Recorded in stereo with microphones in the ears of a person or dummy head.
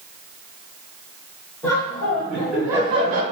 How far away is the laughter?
About 1.5 m.